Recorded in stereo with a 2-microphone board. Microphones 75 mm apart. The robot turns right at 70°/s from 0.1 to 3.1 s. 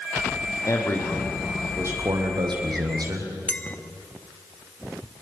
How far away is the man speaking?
About 5 m.